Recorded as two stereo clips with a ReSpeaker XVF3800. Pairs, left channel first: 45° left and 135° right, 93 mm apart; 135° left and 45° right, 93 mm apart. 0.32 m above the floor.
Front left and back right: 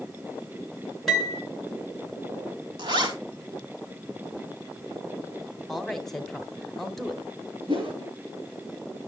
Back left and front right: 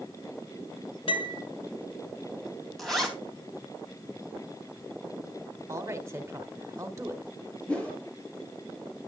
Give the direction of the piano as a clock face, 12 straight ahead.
8 o'clock.